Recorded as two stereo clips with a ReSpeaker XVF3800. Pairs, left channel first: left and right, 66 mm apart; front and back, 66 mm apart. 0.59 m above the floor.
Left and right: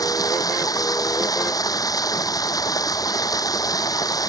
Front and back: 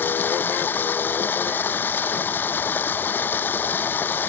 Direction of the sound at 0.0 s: 60° left.